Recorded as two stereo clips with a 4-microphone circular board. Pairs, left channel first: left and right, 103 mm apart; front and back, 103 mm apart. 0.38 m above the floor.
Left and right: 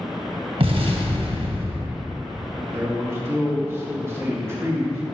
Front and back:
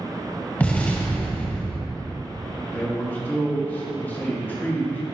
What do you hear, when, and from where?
0.6 s an explosion: 75° right, 1.3 m
2.7 s a man speaking: 55° right, 1.5 m